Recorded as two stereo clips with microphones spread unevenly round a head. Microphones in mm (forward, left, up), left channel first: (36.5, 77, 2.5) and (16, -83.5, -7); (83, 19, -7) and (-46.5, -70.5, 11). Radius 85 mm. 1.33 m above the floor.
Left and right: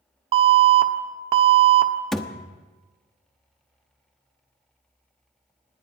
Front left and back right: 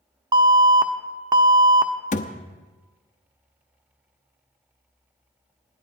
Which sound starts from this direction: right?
An alarm, at 0.3 s.